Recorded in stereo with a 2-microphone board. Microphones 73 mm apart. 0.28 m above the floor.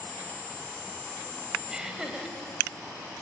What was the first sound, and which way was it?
Laughter, 10° right (ahead or behind).